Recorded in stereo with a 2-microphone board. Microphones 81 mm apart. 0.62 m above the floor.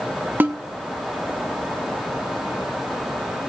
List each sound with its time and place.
0.4 s a snare drum: 25° right (ahead or behind), 1.2 m